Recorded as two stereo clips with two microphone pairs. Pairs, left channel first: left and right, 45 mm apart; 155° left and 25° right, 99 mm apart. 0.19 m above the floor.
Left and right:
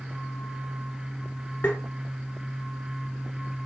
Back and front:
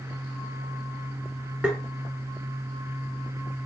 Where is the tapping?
60° left, 0.7 m.